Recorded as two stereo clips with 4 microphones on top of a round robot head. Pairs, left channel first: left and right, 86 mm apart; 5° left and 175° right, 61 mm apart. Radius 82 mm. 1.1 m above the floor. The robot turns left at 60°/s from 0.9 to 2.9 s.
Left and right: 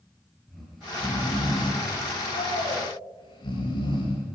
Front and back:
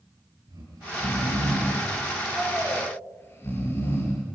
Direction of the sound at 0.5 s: Straight behind.